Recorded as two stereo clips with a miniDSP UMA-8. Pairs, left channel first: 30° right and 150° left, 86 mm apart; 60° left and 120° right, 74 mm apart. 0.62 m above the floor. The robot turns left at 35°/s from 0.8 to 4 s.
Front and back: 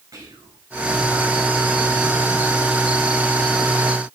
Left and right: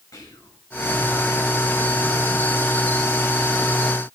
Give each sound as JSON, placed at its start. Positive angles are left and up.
{"t": 0.1, "sound": "whispering", "azimuth_deg": 100, "distance_m": 3.5}